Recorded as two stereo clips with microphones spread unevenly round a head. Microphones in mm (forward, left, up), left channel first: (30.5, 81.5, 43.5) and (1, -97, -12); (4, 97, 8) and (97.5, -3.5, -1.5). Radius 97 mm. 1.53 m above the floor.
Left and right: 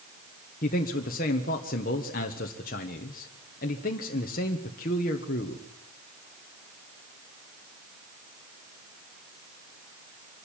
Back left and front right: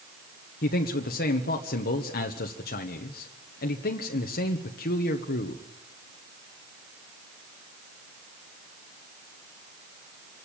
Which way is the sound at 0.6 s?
130° left.